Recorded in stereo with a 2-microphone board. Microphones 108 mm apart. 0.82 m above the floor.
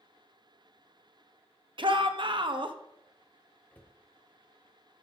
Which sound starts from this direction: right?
A shout, at 1.8 s.